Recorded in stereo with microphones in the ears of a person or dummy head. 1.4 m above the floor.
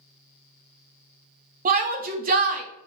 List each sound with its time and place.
1.6 s a shout: 40° right (ahead or behind), 0.7 m